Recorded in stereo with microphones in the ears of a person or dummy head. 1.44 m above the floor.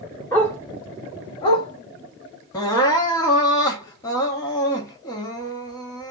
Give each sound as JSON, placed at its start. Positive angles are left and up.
{"t": 0.3, "sound": "a dog barking", "side_deg": 10, "distance_m": 1.4}
{"t": 2.5, "sound": "crying", "side_deg": 15, "distance_m": 1.0}